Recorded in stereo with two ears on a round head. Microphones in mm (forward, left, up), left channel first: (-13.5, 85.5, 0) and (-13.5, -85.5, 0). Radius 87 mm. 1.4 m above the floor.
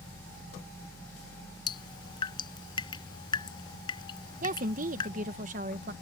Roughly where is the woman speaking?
Right.